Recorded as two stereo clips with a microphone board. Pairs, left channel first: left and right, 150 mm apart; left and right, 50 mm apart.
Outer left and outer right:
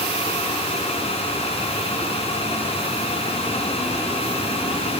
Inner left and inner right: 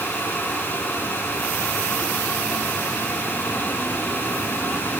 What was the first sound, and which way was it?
Only background noise.